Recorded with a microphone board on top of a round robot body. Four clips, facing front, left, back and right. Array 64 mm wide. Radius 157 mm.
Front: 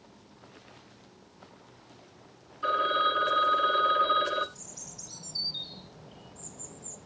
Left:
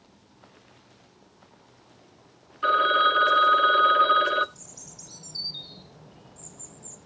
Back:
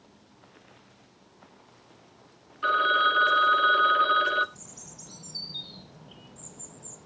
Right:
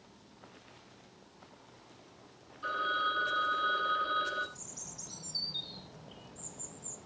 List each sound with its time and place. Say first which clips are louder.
2.6 s a phone ringing: left 12 dB, back 4 dB; 110° left, 1.4 m
4.5 s a bird: left 1 dB, even; 165° right, 3.5 m